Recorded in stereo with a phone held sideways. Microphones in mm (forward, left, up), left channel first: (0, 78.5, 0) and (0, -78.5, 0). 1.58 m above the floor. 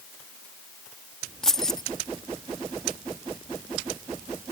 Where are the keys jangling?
5° left (ahead or behind).